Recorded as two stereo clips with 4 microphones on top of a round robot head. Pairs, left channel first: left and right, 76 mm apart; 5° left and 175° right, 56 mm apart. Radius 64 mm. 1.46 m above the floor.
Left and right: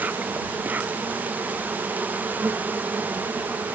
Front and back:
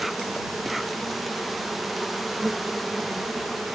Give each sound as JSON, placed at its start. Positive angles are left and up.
{"t": 0.0, "sound": "an insect", "azimuth_deg": -90}